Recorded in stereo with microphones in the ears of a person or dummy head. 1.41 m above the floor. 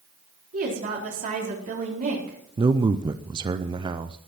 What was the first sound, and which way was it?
A woman speaking, 45° right (ahead or behind).